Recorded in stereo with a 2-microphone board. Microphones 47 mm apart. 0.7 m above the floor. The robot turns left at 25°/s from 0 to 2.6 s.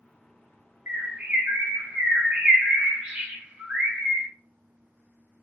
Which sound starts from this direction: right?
A bird, at 0.9 s.